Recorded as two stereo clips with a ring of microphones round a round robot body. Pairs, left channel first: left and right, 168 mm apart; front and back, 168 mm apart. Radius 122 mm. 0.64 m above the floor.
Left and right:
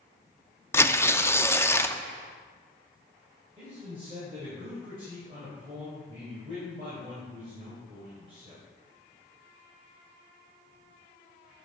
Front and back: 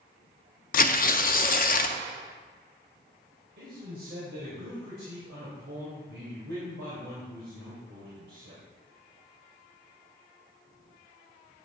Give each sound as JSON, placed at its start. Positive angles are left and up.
{"t": 0.7, "sound": "tearing paper", "azimuth_deg": 15, "distance_m": 0.6}
{"t": 3.6, "sound": "a man speaking", "azimuth_deg": -155, "distance_m": 3.0}